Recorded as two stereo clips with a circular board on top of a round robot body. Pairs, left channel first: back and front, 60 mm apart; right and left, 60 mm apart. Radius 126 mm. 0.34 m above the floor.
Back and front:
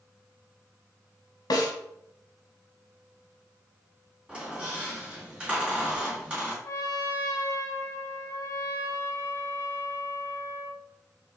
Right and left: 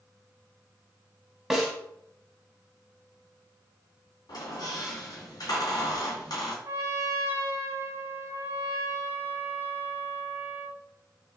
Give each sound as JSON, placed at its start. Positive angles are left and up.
{"t": 1.5, "sound": "a snare drum", "azimuth_deg": 175, "distance_m": 1.0}
{"t": 4.3, "sound": "a squeak", "azimuth_deg": -75, "distance_m": 2.5}
{"t": 6.6, "sound": "a trumpet", "azimuth_deg": 140, "distance_m": 0.6}